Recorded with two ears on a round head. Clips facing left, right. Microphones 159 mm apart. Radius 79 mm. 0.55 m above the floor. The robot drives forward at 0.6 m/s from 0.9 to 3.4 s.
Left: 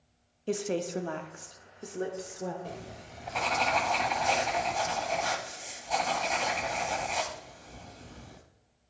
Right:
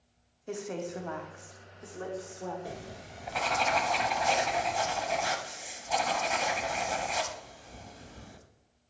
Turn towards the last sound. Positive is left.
turn(degrees=-5)  # may be behind; listen again after turning